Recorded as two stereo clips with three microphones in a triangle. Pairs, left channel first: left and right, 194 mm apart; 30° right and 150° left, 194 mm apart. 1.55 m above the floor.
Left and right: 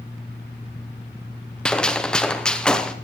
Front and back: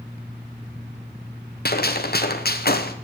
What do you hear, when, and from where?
1.6 s a gunshot: 5° left, 1.0 m